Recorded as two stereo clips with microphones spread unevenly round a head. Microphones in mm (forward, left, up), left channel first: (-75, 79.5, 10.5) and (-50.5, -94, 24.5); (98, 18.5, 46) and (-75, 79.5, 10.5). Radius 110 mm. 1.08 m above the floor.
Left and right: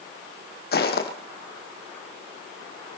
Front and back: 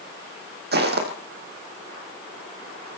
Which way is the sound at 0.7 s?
125° left.